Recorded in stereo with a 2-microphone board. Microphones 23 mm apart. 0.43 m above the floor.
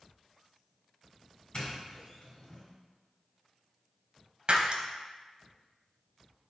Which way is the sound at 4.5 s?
50° right (ahead or behind).